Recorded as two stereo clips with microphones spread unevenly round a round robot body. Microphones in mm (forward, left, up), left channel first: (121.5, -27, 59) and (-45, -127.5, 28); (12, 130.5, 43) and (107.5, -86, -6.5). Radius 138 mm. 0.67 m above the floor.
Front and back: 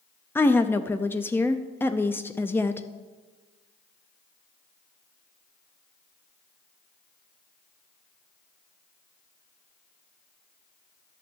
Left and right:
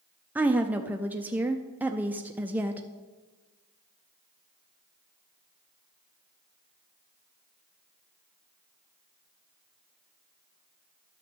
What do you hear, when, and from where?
0.3 s a woman speaking: 55° right, 0.6 m